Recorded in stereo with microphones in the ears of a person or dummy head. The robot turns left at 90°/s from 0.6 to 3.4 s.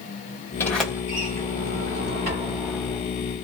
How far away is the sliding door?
About 1.6 m.